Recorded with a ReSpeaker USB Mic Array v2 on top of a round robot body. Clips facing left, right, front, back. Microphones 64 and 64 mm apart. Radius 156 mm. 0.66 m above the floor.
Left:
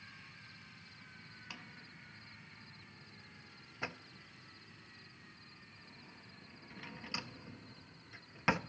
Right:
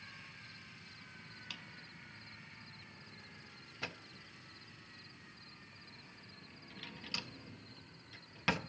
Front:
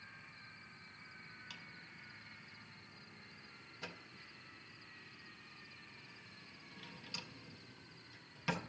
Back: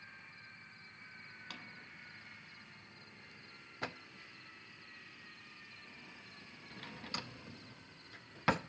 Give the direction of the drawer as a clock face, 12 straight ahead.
7 o'clock.